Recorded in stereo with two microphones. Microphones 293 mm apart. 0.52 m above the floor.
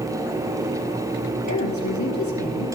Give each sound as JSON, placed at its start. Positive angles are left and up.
{"t": 1.5, "sound": "a woman speaking", "side_deg": 65, "distance_m": 2.5}